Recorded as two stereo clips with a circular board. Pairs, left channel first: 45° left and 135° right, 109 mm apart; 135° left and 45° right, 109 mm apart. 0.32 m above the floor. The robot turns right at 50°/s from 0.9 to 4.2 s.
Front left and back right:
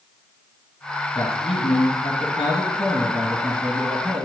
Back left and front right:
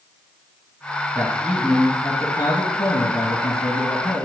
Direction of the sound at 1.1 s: 25° left.